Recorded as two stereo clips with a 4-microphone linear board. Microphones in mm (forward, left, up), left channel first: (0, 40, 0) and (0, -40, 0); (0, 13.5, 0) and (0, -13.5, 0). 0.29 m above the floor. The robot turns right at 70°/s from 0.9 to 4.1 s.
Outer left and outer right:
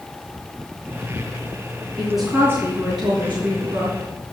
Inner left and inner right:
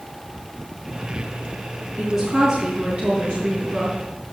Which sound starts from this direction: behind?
A woman speaking, at 2.0 s.